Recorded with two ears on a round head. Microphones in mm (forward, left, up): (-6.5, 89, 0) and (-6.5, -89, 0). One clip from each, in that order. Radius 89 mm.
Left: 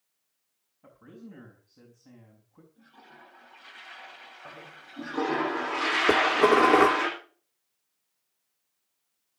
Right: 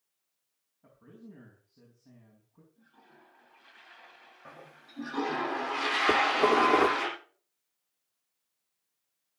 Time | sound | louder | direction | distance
0.8 | a man speaking | left 4 dB | 30° left (ahead or behind) | 5 m
2.8 | a toilet flushing | left 8 dB | 30° left (ahead or behind) | 1.4 m
4.5 | a toilet flushing | left 2 dB | 25° right (ahead or behind) | 7.5 m
6.1 | dishes clattering | left 3 dB | 10° left (ahead or behind) | 0.9 m